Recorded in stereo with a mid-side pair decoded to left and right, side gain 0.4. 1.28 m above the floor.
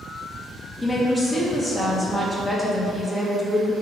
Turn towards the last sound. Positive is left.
turn(degrees=25)